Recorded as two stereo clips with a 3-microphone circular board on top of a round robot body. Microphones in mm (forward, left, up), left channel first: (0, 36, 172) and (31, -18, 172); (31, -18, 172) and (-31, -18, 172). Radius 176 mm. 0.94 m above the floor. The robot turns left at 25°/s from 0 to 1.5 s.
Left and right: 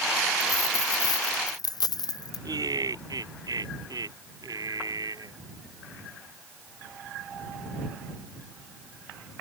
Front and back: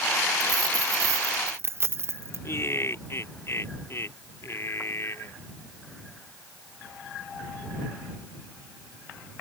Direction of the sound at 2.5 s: 50° right.